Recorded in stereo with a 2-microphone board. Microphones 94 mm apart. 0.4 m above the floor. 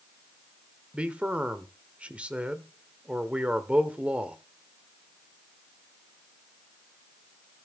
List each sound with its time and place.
0.9 s a man speaking: 15° right (ahead or behind), 1.0 m